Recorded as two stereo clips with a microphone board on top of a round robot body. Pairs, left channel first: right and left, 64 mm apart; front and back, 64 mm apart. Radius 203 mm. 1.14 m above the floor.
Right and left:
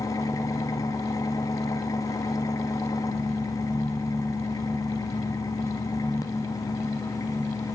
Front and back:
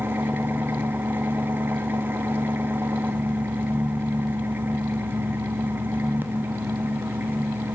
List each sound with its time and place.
0.0 s an engine running: 120° right, 1.7 m